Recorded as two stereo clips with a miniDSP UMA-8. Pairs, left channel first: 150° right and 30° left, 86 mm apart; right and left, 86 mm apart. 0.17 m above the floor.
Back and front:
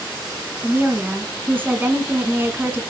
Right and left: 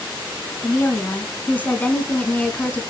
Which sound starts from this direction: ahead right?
A woman speaking, at 0.6 s.